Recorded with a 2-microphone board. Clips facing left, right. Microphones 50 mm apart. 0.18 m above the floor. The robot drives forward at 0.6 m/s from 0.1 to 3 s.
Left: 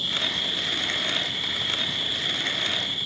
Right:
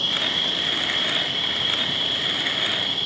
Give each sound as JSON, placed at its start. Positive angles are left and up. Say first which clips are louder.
{"t": 0.0, "sound": "an insect", "louder": "right 3 dB", "side_deg": -65}